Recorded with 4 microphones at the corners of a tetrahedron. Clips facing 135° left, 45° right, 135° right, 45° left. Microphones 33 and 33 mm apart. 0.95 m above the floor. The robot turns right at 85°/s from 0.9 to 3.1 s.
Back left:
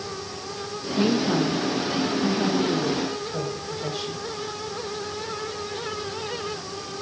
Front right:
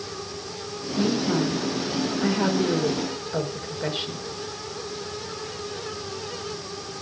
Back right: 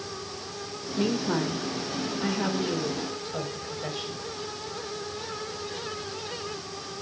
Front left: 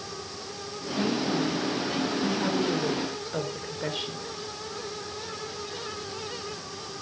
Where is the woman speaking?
175° right, 4 m; by 4.2 s 10° left, 4 m.